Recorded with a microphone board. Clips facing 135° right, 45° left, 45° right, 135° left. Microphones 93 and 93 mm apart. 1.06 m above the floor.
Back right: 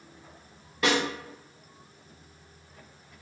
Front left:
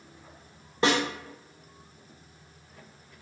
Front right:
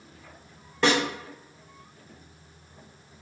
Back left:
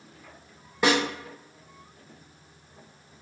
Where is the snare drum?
65° left, 0.7 m.